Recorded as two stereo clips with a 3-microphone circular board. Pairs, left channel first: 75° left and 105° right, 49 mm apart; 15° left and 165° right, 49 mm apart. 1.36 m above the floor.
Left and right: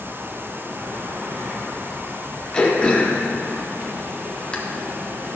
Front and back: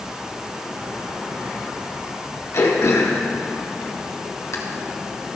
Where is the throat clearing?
5° left, 1.6 m.